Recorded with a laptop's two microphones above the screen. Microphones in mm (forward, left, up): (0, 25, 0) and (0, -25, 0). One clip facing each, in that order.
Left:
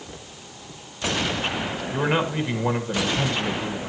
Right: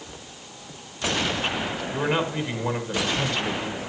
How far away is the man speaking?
About 1.5 m.